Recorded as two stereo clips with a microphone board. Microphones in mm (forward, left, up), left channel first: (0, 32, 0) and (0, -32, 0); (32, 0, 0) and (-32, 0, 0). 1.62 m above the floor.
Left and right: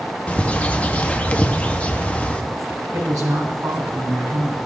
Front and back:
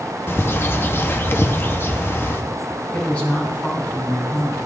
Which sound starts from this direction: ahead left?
A bird, at 0.3 s.